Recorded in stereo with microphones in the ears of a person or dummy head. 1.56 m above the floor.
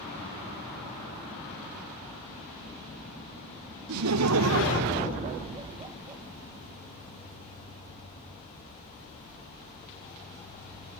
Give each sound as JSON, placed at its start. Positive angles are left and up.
{"t": 3.9, "sound": "laughter", "side_deg": -75, "distance_m": 0.9}